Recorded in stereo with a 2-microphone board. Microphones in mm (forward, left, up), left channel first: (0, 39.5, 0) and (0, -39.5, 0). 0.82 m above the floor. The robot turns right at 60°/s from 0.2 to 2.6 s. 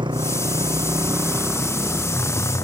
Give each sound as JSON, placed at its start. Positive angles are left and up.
{"t": 0.0, "sound": "a motorcycle", "side_deg": -85}